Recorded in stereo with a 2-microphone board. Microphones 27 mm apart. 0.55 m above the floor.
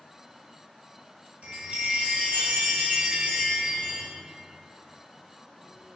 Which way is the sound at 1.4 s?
55° right (ahead or behind).